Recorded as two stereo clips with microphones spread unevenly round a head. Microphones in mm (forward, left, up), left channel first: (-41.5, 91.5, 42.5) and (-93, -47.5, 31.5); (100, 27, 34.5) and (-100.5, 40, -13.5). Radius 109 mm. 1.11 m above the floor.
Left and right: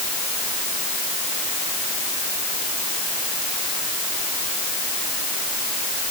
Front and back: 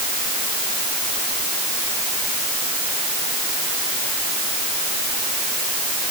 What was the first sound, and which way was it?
Only background noise.